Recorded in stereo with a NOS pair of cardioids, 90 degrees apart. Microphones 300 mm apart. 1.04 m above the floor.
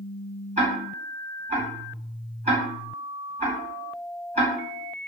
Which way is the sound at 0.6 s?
20° right.